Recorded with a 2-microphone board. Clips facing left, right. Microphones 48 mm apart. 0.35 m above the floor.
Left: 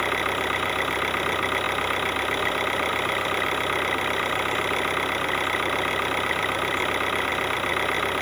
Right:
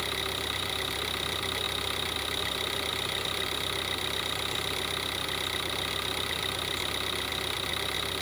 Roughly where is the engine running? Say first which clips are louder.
Left 9 dB; left.